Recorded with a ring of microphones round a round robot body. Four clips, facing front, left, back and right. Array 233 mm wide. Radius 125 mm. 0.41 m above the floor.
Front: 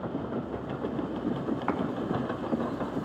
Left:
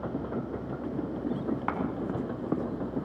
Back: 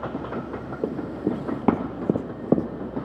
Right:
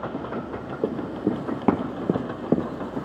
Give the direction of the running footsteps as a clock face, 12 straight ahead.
4 o'clock.